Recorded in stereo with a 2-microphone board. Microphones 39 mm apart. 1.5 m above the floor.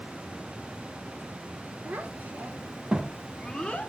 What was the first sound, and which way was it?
A child speaking, 55° right (ahead or behind).